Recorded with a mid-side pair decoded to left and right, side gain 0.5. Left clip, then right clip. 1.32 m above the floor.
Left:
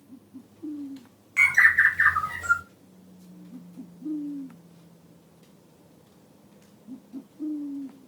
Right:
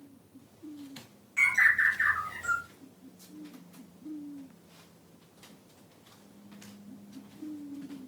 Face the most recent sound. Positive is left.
turn(degrees=65)